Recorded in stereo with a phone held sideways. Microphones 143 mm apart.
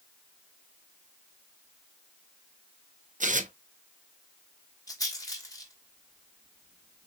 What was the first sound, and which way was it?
Tearing paper, 65° right (ahead or behind).